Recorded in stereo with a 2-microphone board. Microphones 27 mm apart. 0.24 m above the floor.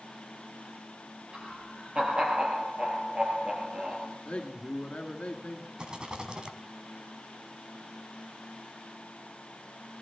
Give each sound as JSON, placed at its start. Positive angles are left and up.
{"t": 1.3, "sound": "laughter", "side_deg": -40, "distance_m": 5.5}
{"t": 4.2, "sound": "a man speaking", "side_deg": 50, "distance_m": 2.0}
{"t": 5.8, "sound": "a rattle", "side_deg": -35, "distance_m": 1.9}